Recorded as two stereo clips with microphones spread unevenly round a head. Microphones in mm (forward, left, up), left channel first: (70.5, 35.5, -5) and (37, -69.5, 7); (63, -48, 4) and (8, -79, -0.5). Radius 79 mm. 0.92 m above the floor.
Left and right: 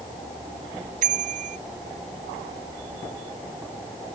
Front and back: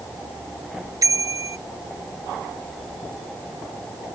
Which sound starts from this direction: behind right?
A bicycle bell, at 1.0 s.